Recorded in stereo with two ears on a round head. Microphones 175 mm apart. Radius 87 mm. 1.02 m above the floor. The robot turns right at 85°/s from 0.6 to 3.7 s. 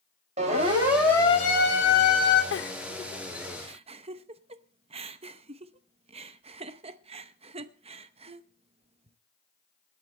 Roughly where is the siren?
Right.